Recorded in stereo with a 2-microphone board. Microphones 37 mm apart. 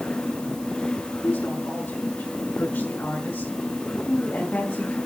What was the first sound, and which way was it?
A woman speaking, 80° left.